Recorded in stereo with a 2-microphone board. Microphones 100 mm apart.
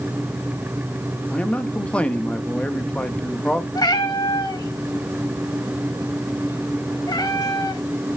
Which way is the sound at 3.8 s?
45° left (ahead or behind).